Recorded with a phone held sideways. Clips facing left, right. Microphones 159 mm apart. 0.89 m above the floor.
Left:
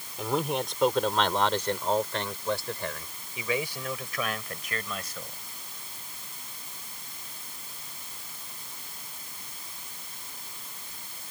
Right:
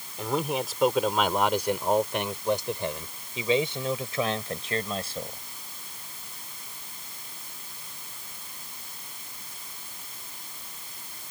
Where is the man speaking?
Centre (ahead or behind); by 5.4 s 35° right (ahead or behind).